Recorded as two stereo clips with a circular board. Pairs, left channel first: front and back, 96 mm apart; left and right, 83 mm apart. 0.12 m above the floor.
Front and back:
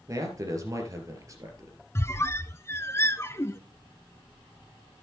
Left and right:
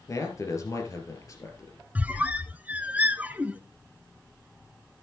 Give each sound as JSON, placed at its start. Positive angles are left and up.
{"t": 0.1, "sound": "a man speaking", "azimuth_deg": 130, "distance_m": 2.5}
{"t": 1.9, "sound": "a squeak", "azimuth_deg": -35, "distance_m": 0.5}